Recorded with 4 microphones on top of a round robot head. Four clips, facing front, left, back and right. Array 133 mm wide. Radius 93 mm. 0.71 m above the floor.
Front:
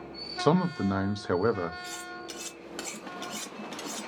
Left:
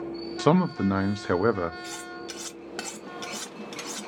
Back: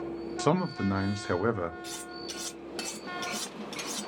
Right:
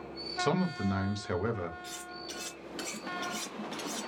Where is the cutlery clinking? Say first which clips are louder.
Left 6 dB, even; 85° left, 1.6 m.